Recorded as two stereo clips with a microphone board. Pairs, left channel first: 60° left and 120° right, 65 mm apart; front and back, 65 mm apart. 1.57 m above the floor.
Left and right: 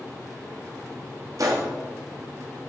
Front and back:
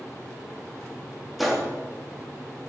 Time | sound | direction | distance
1.4 | a gunshot | 90° right | 2.5 m